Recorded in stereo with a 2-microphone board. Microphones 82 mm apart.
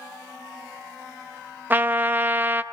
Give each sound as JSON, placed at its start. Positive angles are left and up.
{"t": 1.7, "sound": "a trumpet", "side_deg": -25, "distance_m": 0.6}